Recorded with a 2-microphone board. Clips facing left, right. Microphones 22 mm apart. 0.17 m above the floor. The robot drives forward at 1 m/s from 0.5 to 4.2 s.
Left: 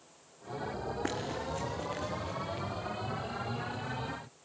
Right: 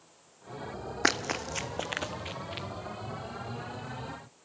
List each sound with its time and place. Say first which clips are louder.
1.0 s running footsteps: right 11 dB; 80° right, 0.6 m; by 2.7 s 45° right (ahead or behind), 1.1 m